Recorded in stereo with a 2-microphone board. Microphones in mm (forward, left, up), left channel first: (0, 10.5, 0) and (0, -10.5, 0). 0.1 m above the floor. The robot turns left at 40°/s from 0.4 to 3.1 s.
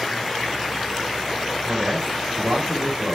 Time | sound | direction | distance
1.6 | a man speaking | 50° right | 6.5 m